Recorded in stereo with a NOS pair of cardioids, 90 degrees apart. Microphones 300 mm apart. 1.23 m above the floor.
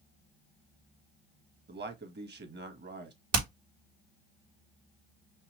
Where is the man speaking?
35° right, 1.4 m.